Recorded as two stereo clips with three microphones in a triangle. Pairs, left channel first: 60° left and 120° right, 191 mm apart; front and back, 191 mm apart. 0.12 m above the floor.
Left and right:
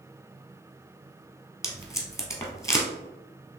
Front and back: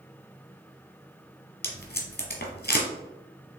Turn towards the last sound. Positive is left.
turn(degrees=-15)